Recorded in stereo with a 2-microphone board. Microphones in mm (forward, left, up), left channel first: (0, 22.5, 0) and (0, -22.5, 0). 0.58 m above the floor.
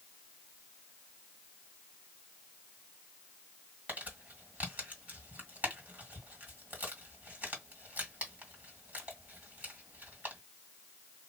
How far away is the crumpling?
About 2 m.